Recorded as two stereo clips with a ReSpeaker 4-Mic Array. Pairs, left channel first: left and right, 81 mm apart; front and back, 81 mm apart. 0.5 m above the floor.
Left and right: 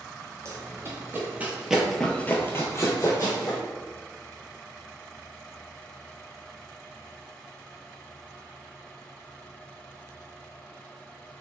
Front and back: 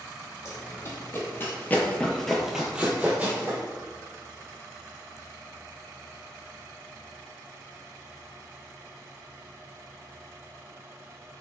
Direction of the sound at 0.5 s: 45° right.